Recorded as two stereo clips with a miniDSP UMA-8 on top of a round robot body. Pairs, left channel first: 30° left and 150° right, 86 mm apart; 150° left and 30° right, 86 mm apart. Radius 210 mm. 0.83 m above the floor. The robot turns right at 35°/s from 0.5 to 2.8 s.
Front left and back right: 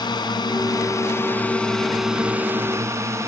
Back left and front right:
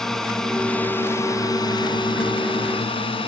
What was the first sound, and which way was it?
A drone, 65° left.